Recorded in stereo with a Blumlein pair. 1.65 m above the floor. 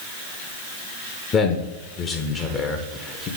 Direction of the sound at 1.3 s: 25° left.